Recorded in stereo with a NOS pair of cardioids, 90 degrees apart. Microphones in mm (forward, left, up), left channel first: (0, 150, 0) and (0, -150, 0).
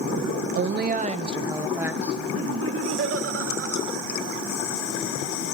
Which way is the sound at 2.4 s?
45° right.